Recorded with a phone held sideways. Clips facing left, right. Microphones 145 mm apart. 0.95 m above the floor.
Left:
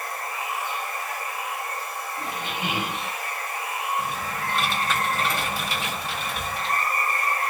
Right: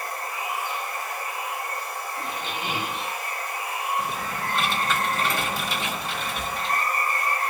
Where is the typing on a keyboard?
5° left (ahead or behind), 1.6 m.